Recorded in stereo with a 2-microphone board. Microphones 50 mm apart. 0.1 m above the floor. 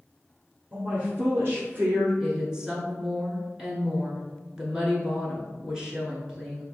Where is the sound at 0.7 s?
25° right (ahead or behind), 1.3 m; by 2.1 s 55° right (ahead or behind), 1.9 m.